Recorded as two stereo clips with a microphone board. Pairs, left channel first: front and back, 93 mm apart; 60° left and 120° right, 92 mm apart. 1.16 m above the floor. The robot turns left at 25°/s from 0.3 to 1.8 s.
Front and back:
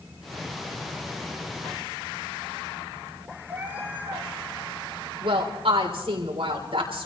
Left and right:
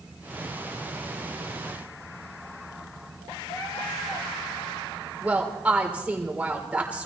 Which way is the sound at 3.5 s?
110° left.